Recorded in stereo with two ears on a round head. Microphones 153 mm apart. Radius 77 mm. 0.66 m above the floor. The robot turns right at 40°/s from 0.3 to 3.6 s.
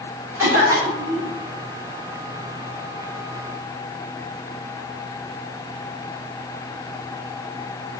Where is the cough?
170° right, 3 m; by 1.3 s 130° right, 3 m.